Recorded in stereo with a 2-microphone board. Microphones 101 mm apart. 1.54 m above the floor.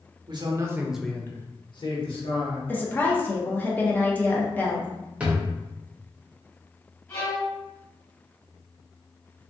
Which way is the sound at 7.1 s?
30° left (ahead or behind).